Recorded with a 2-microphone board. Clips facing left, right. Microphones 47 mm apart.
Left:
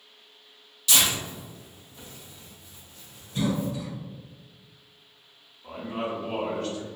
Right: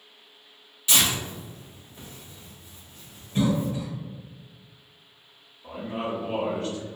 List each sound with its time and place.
0.9 s tearing paper: 25° right (ahead or behind), 1.4 m
3.4 s a cough: 35° right (ahead or behind), 1.0 m
5.6 s a man speaking: 5° right (ahead or behind), 1.7 m